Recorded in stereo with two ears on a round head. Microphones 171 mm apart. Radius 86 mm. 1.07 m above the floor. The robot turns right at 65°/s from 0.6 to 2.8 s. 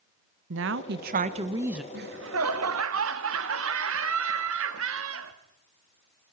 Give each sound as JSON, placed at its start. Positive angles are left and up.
{"t": 0.5, "sound": "a woman speaking", "azimuth_deg": -80, "distance_m": 0.9}
{"t": 1.9, "sound": "laughter", "azimuth_deg": -130, "distance_m": 1.5}